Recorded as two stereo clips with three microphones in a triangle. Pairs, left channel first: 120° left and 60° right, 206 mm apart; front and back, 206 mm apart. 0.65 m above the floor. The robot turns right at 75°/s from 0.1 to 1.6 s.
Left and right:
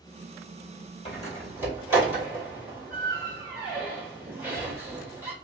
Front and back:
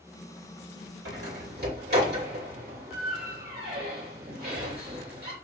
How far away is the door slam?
About 2.5 m.